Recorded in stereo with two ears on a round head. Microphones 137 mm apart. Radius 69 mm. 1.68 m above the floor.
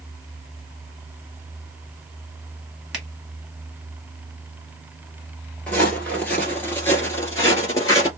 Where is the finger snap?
5° right (ahead or behind), 1.5 m.